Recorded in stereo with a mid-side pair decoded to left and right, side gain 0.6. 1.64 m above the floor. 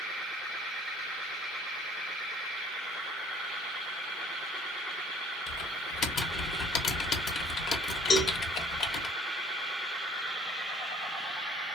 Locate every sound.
5.5 s typing on a keyboard: 60° left, 1.0 m
8.1 s a cowbell: 50° left, 1.0 m